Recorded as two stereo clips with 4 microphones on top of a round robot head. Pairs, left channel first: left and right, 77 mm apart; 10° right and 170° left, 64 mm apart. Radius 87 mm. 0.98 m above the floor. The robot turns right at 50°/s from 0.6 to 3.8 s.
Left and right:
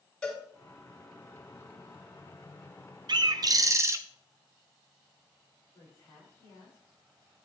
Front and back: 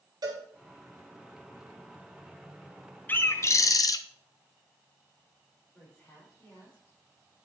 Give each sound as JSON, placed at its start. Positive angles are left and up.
{"t": 0.2, "sound": "a cowbell", "azimuth_deg": 170, "distance_m": 4.5}
{"t": 3.1, "sound": "a bird", "azimuth_deg": -70, "distance_m": 0.6}
{"t": 5.7, "sound": "a woman speaking", "azimuth_deg": 45, "distance_m": 5.0}